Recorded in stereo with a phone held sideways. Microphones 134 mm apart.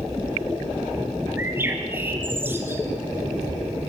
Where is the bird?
15° right (ahead or behind), 3 m.